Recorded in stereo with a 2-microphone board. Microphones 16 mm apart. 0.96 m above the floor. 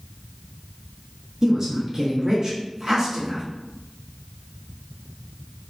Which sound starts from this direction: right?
A woman speaking, at 1.4 s.